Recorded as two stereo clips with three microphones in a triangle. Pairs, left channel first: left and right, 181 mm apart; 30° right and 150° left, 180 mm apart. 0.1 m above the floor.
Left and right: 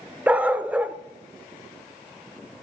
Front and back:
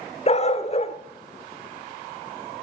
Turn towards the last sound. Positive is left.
turn(degrees=-10)